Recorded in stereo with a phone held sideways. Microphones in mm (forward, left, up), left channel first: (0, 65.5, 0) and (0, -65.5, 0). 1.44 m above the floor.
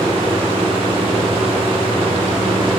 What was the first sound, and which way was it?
A fan, 45° right (ahead or behind).